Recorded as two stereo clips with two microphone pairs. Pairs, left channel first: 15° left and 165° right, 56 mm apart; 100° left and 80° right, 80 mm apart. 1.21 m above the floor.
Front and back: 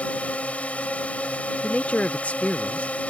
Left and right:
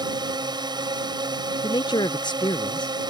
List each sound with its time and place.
0.0 s a drone: 55° right
1.6 s a man speaking: 75° left